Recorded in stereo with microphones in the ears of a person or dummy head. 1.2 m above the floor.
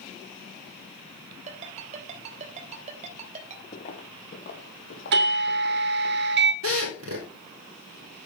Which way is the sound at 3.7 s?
20° left (ahead or behind).